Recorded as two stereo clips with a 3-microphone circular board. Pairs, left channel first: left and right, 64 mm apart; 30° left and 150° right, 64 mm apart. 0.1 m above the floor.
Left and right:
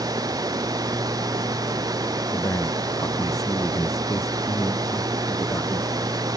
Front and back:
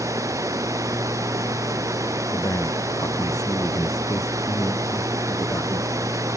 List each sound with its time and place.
0.0 s running water: 110° right
2.3 s a man speaking: 60° left